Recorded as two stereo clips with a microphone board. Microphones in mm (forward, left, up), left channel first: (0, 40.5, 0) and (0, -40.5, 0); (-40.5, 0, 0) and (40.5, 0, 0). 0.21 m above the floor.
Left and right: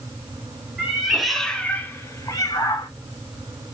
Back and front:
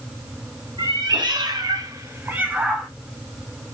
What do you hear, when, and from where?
0.8 s a cat meowing: 10° right, 0.8 m; by 2.9 s 85° left, 0.7 m